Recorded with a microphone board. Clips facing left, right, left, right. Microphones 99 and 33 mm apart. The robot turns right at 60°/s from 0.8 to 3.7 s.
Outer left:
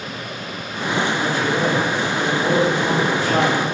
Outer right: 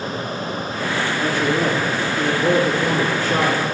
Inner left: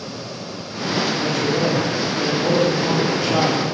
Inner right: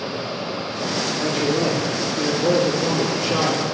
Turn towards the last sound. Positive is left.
turn(degrees=50)